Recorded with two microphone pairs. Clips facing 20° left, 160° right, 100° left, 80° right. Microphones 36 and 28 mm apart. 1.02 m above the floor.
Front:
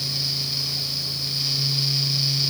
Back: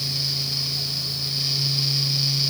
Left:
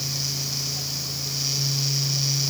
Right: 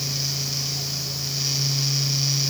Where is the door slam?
No door slam in this recording.